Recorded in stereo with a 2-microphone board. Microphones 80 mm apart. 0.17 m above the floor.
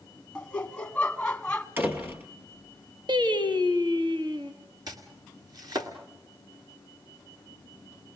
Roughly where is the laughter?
Centre.